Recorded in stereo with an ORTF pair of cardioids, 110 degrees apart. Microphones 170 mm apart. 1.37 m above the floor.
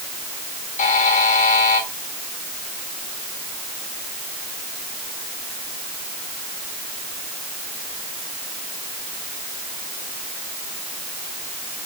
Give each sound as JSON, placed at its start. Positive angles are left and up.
{"t": 0.8, "sound": "a buzzer", "azimuth_deg": 50, "distance_m": 3.5}